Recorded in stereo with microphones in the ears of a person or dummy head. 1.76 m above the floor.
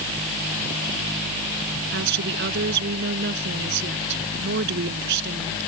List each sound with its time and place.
1.9 s a woman speaking: 65° right (ahead or behind)